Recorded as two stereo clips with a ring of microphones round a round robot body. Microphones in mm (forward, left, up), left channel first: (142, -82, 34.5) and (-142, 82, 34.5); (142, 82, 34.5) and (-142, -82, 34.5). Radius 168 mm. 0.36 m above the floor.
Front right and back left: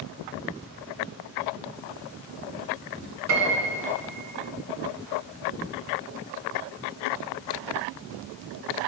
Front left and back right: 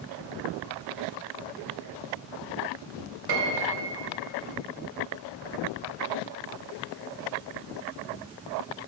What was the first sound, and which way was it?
A piano, 165° right.